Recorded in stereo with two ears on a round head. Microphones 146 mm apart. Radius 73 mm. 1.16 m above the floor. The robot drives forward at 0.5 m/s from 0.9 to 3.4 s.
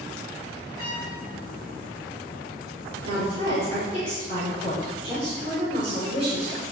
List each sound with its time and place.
0.8 s a trumpet: 65° right (ahead or behind), 4.5 m
3.0 s a woman speaking: 45° right (ahead or behind), 4 m; by 6.6 s 40° right (ahead or behind), 4.5 m